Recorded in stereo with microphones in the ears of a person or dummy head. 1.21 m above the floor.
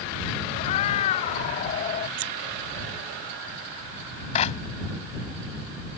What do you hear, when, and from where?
0.6 s a cat meowing: 45° left (ahead or behind); by 2.1 s 40° left (ahead or behind)
2.2 s scissors: 75° right (ahead or behind)
4.3 s a clap: 35° left (ahead or behind)